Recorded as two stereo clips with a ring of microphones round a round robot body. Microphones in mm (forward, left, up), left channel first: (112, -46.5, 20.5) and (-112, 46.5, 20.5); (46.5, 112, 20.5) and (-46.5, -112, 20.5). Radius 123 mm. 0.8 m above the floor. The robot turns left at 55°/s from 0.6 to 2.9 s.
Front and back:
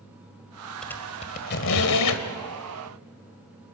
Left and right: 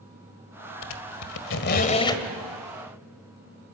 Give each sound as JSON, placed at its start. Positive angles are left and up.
{"t": 0.8, "sound": "a squeak", "azimuth_deg": 65, "distance_m": 1.8}